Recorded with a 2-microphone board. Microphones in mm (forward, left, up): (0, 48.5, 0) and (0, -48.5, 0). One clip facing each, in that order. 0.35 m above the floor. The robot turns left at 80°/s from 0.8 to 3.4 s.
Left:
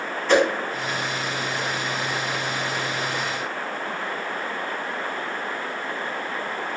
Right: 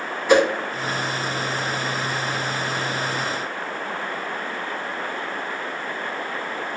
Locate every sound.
0.3 s a whoosh: 10° right (ahead or behind), 0.5 m